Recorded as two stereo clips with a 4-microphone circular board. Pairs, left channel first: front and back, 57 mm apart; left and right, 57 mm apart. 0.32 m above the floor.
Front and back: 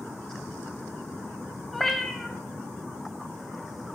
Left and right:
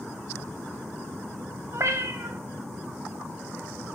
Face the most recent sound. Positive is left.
turn(degrees=-85)